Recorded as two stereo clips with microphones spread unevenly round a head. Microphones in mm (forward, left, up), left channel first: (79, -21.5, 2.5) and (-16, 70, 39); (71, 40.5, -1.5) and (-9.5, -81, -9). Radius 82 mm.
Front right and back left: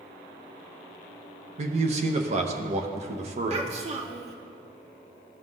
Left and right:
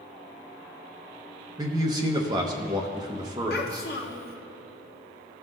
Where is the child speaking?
95° left, 1.1 m.